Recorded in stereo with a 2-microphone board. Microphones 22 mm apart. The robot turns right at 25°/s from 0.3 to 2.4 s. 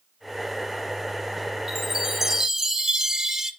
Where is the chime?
Centre (ahead or behind), 0.8 m; by 3.5 s 15° right (ahead or behind), 0.8 m.